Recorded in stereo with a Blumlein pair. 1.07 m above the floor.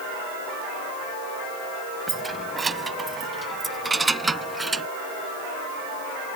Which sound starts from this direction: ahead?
Keys jangling, at 2.1 s.